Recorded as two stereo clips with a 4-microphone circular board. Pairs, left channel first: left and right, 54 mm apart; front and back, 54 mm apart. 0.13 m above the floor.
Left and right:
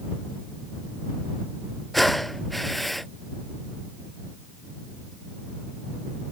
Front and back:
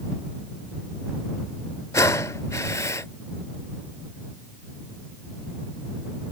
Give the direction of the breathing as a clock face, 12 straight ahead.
12 o'clock.